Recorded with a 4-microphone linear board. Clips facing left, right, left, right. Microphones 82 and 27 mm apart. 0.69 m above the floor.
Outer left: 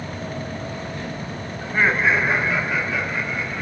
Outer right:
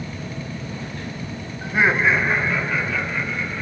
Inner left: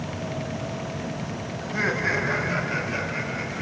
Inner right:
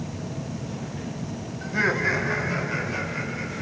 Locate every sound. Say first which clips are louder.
1.6 s laughter: outer right 1 dB, inner right 2 dB; 15° right (ahead or behind), 0.8 m; by 3.6 s 20° left (ahead or behind), 2.5 m